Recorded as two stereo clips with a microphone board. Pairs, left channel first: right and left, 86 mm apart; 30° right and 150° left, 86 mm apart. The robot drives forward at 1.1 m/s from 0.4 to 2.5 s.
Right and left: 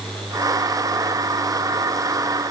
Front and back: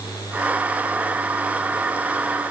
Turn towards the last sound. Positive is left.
No sound to turn to.